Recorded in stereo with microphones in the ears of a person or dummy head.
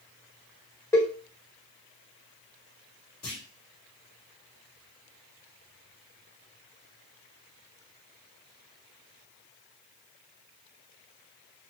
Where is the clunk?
Centre (ahead or behind), 2.5 m.